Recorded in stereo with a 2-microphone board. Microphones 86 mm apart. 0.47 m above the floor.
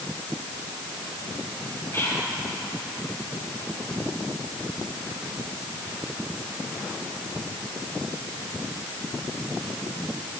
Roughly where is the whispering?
Left.